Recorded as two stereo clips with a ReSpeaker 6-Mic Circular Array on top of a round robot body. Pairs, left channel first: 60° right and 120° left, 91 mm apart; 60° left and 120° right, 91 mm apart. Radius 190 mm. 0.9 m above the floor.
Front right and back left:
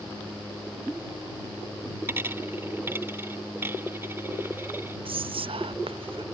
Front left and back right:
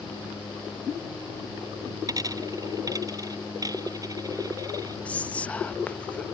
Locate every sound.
2.1 s a dropped coin: 175° right
5.0 s whispering: 135° left